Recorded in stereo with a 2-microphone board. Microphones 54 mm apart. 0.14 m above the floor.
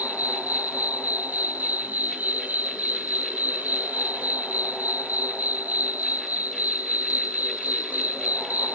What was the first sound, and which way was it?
An insect, 35° right (ahead or behind).